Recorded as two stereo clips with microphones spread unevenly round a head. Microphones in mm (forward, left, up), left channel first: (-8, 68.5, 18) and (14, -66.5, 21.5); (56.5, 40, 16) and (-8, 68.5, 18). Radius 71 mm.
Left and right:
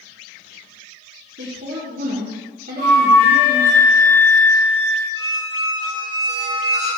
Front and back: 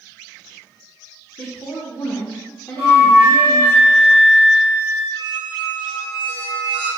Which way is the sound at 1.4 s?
95° right.